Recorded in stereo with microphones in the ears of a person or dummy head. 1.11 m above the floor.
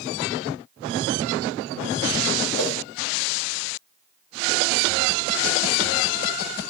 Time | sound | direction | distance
2.5 | a whoosh | 20° left (ahead or behind) | 1.4 m